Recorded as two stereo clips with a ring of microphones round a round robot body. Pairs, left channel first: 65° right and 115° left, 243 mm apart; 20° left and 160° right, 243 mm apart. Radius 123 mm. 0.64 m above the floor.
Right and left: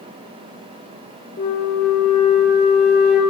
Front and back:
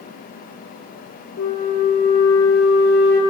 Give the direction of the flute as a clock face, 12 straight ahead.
1 o'clock.